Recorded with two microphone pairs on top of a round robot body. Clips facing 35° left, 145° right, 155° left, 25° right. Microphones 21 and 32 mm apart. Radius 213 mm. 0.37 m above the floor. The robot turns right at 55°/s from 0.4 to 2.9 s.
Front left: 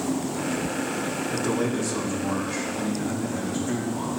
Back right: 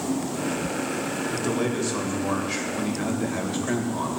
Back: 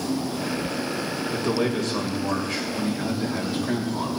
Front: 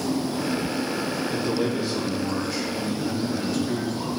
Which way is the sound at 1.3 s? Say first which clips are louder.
Front left 1 dB, back 2 dB; 130° left.